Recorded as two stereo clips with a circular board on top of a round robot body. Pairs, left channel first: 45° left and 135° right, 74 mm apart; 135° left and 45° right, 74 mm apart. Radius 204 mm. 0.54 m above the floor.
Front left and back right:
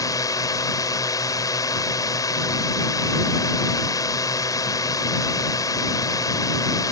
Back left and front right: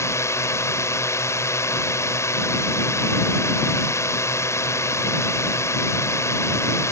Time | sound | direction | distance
0.0 | a drone | 85° left | ?